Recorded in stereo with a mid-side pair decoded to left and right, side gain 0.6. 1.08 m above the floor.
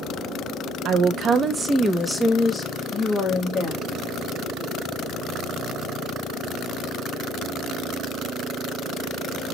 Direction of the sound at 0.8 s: 60° right.